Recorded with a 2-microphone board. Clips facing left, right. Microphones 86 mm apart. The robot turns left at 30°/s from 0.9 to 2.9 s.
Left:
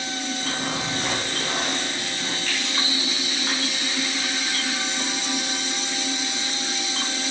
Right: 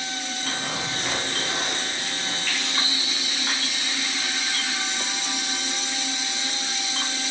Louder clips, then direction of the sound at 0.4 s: Left 1 dB; 140° left.